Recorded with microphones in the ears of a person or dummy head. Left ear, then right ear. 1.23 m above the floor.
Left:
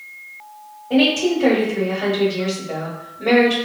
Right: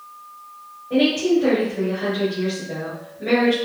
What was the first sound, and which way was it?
A woman speaking, 55° left (ahead or behind).